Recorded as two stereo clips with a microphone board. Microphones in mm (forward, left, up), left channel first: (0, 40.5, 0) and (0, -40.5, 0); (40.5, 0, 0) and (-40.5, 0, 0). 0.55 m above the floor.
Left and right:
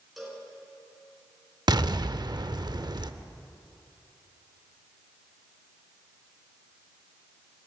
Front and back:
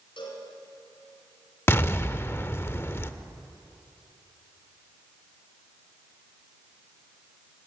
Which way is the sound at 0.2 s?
Straight ahead.